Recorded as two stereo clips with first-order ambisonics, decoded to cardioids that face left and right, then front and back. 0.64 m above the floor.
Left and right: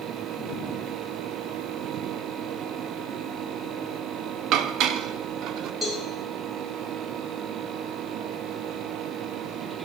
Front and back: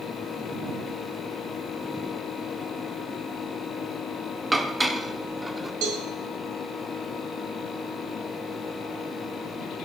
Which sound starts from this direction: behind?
A cowbell, at 5.8 s.